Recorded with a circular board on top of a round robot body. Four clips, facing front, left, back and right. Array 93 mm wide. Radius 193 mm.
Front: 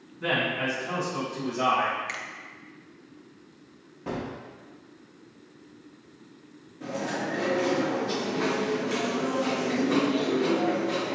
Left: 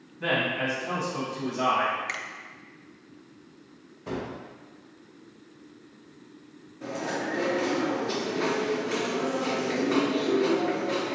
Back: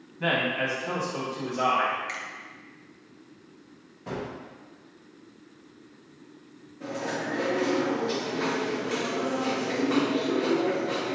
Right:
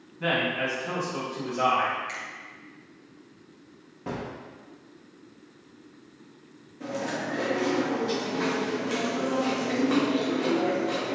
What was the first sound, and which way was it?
A man speaking, 160° right.